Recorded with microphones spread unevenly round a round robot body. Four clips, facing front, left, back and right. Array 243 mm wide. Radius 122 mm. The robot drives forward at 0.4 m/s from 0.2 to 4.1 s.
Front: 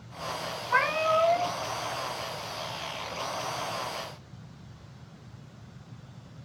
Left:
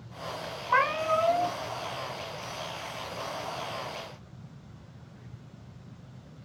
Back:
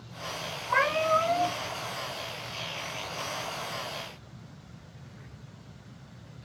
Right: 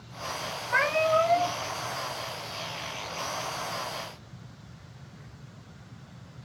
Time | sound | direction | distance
0.7 | a cat meowing | 120° left | 1.3 m